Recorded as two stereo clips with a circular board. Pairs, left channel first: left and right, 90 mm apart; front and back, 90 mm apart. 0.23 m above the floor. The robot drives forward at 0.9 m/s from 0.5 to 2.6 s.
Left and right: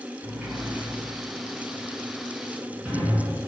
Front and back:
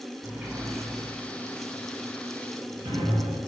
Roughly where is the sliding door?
Behind right.